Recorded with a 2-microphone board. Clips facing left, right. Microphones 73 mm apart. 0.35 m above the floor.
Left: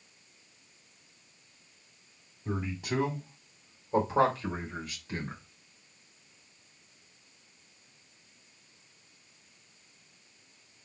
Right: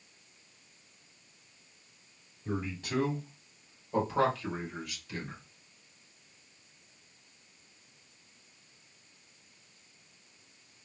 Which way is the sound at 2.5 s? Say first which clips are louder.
Left 2 dB; 10° left (ahead or behind).